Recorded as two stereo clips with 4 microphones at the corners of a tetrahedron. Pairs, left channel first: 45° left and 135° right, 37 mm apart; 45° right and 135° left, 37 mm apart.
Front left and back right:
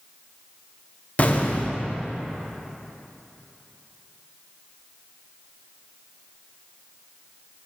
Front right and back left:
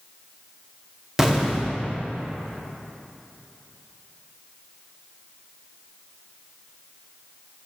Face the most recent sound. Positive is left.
turn(degrees=60)